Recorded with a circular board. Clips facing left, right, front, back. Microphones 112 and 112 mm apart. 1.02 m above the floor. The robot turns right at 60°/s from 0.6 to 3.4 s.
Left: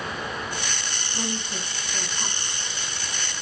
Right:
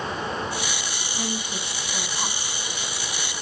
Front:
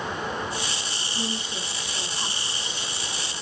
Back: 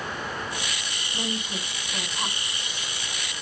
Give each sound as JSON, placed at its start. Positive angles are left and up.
{"t": 1.1, "sound": "a woman speaking", "azimuth_deg": 170, "distance_m": 2.0}